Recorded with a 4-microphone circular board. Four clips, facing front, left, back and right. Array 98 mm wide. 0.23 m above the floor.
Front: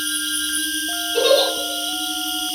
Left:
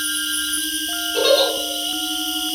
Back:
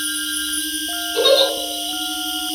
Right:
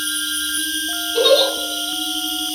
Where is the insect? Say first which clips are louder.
Even, even; 125° left, 1.8 m.